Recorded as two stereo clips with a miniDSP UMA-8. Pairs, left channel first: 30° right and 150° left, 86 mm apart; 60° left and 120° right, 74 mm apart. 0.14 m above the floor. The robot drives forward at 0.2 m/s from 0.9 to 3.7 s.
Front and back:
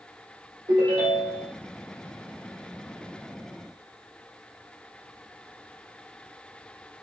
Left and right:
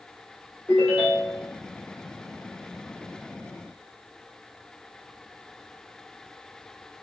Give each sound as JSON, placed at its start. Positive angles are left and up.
{"t": 0.7, "sound": "a ringtone", "azimuth_deg": 140, "distance_m": 2.0}